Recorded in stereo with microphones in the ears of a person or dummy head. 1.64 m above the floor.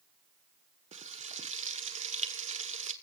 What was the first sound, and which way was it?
Frying, 35° right (ahead or behind).